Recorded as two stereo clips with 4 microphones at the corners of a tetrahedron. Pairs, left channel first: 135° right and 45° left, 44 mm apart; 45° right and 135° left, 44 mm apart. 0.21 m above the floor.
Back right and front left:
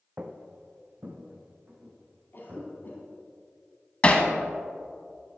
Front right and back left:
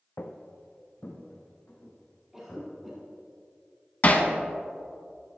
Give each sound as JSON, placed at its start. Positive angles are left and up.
{"t": 0.2, "sound": "footsteps", "azimuth_deg": -15, "distance_m": 0.7}
{"t": 2.3, "sound": "a cough", "azimuth_deg": -145, "distance_m": 1.5}
{"t": 4.0, "sound": "hammering", "azimuth_deg": -85, "distance_m": 0.8}